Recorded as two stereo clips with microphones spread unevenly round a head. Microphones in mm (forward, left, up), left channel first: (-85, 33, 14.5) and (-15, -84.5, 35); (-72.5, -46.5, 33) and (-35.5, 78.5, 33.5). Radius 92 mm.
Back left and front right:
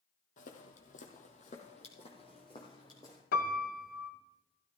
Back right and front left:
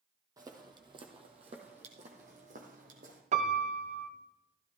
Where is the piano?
105° left, 1.0 m.